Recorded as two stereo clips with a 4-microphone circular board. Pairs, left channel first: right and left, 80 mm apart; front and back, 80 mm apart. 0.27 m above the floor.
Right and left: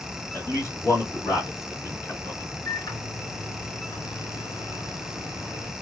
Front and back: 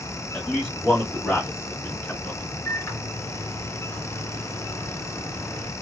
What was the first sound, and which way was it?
A man speaking, 75° right.